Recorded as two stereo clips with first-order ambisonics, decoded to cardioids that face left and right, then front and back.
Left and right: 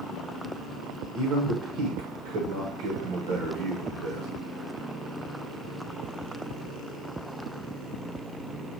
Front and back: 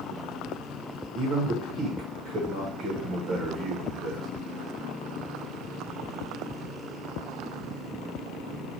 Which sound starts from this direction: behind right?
A man speaking, at 1.1 s.